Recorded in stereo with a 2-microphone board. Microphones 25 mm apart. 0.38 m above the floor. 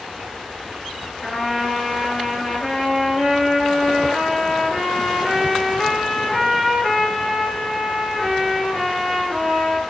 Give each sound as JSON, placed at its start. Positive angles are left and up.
{"t": 1.2, "sound": "a trumpet", "side_deg": 20, "distance_m": 5.0}